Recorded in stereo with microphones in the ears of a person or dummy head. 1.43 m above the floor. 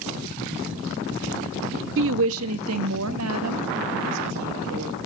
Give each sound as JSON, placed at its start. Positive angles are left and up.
{"t": 2.0, "sound": "a woman speaking", "side_deg": -60, "distance_m": 0.7}